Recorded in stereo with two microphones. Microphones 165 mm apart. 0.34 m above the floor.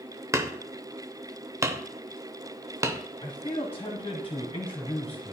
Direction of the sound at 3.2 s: 20° left (ahead or behind).